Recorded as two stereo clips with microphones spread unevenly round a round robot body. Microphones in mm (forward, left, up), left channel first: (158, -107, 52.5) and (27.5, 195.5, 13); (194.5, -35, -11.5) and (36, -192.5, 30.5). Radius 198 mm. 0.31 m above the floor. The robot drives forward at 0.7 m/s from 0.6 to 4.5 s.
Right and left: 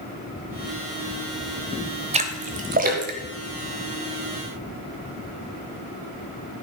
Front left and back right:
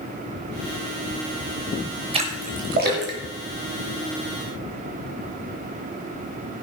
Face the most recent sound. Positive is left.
turn(degrees=175)